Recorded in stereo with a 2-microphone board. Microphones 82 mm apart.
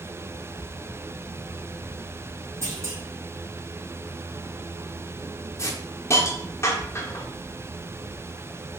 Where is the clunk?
35° right (ahead or behind), 2 m.